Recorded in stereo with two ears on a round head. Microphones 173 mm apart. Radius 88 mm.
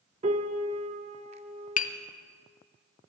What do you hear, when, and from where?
0.2 s a piano: 30° right (ahead or behind), 0.6 m
1.8 s tapping: 40° left (ahead or behind), 0.6 m